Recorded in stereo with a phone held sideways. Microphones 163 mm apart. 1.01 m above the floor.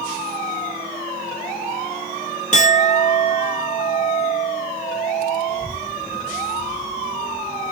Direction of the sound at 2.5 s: 45° left (ahead or behind).